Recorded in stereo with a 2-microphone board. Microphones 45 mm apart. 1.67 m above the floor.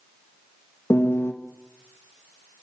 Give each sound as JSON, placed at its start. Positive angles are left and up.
{"t": 0.9, "sound": "a piano", "side_deg": 70, "distance_m": 2.5}